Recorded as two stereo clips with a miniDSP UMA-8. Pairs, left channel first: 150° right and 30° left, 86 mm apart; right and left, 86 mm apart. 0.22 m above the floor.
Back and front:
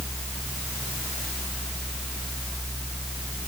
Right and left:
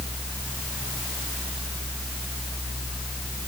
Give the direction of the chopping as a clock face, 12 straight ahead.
I don't hear chopping.